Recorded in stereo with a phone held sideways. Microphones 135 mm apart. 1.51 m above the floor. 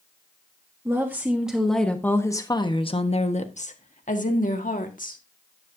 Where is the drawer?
I don't hear a drawer.